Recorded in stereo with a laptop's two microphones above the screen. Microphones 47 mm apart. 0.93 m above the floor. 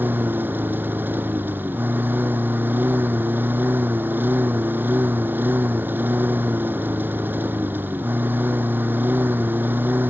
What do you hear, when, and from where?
0.0 s a lawn mower: 50° right (ahead or behind)